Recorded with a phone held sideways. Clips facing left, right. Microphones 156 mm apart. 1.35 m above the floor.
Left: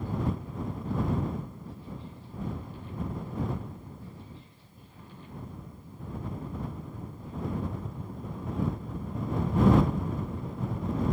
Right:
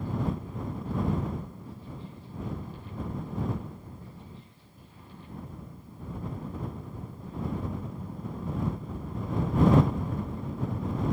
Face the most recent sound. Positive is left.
No sound to turn to.